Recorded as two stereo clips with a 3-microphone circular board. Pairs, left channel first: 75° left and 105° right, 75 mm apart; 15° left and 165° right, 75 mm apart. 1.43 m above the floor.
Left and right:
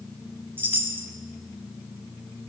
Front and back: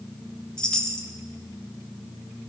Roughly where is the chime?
Ahead right.